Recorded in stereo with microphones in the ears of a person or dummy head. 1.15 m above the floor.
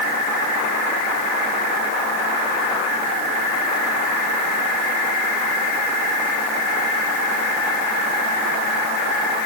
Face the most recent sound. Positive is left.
No sound to turn to.